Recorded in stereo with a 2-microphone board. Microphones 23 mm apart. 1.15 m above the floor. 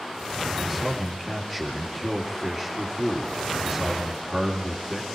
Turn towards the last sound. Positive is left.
turn(degrees=-15)  # may be behind; listen again after turning